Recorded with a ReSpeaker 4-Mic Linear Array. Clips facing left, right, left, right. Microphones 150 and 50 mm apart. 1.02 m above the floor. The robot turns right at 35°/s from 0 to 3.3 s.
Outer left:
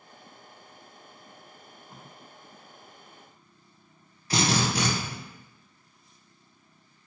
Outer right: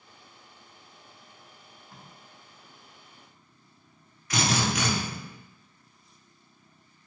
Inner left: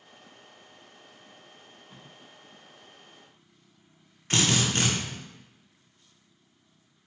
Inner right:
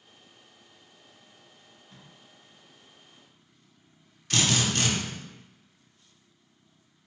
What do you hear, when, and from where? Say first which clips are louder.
1.6 s tape being pulled: outer left 3 dB, inner left 3 dB; 30° left (ahead or behind), 0.6 m; by 2.1 s 10° left (ahead or behind), 0.6 m
4.3 s a drill: outer left 1 dB, inner left 1 dB; 30° left (ahead or behind), 0.6 m